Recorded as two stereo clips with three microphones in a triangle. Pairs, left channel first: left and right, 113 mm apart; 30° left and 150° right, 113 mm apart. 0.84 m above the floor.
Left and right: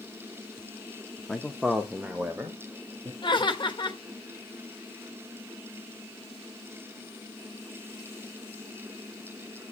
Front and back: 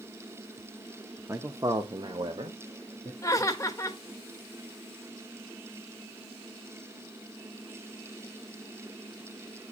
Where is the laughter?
80° left, 1.3 m.